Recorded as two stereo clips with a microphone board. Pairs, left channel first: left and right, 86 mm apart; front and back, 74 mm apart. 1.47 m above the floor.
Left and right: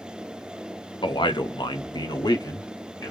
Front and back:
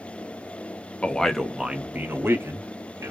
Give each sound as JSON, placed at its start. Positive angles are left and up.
{"t": 1.0, "sound": "a man speaking", "azimuth_deg": 70, "distance_m": 0.8}